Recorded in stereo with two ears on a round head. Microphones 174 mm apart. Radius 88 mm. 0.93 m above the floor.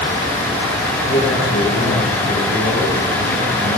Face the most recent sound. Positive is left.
turn(degrees=80)